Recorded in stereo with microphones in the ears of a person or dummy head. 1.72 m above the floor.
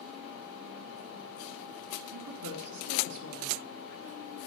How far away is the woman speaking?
About 3 m.